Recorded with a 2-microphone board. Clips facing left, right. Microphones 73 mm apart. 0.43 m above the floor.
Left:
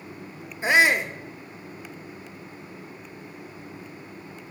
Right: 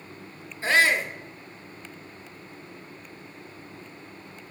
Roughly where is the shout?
Centre.